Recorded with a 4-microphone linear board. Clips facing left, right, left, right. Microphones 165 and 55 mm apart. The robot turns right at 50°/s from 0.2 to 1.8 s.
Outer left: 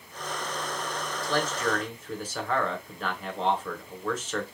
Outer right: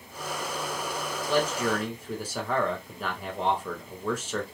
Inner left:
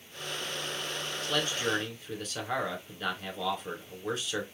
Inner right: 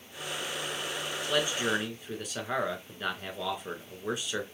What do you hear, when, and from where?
1.2 s a man speaking: 20° right (ahead or behind), 1.1 m; by 4.4 s 10° right (ahead or behind), 1.1 m